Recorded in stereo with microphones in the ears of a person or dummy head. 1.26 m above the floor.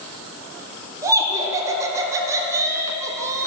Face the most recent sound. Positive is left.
turn(degrees=-15)  # may be behind; listen again after turning